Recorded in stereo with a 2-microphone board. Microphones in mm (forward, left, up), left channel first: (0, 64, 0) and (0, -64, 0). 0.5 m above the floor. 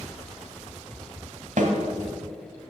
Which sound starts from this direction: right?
A snare drum, at 1.6 s.